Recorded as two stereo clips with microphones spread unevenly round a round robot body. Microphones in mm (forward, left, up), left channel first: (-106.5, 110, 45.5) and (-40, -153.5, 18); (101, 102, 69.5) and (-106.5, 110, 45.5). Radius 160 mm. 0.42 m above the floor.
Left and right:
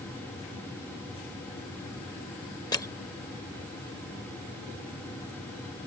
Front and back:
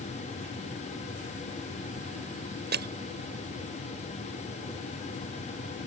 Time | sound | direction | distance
2.7 | crushing | straight behind | ?